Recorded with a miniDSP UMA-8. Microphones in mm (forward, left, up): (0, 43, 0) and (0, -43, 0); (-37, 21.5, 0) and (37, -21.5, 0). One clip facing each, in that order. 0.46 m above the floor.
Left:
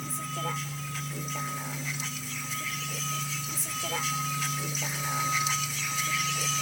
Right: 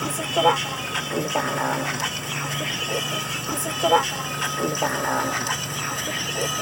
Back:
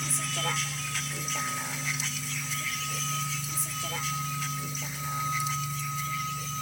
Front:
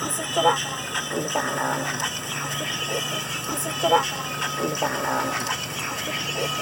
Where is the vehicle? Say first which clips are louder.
Right 14 dB, front 12 dB; 70° right; by 6.6 s 50° right.